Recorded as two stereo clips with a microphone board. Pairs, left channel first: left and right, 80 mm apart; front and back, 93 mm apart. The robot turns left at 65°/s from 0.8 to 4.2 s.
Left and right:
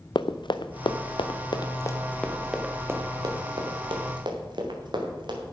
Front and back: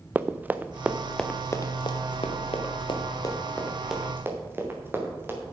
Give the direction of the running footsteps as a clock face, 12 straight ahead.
8 o'clock.